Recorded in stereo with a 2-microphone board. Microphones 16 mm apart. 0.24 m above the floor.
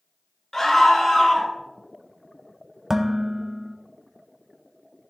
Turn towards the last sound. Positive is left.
turn(degrees=-25)  # may be behind; listen again after turning